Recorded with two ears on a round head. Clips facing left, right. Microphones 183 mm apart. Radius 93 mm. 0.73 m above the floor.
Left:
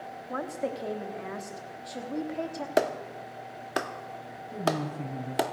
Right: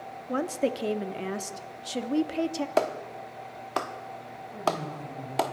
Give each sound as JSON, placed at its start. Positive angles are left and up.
{"t": 0.3, "sound": "a woman speaking", "side_deg": -40, "distance_m": 1.1}
{"t": 2.8, "sound": "a clap", "side_deg": 15, "distance_m": 0.9}
{"t": 4.5, "sound": "a woman speaking", "side_deg": 75, "distance_m": 6.0}